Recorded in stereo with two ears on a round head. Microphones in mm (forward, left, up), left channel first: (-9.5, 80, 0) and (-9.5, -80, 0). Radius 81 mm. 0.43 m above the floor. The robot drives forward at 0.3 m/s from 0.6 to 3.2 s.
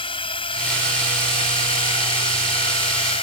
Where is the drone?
30° left (ahead or behind).